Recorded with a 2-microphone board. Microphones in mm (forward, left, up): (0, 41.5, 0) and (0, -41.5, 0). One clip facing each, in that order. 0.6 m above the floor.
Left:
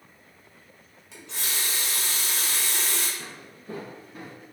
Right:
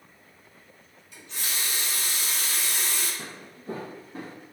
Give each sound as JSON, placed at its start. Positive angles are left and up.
{"t": 1.1, "sound": "a running tap", "side_deg": 75, "distance_m": 1.0}
{"t": 3.2, "sound": "footsteps", "side_deg": -30, "distance_m": 0.6}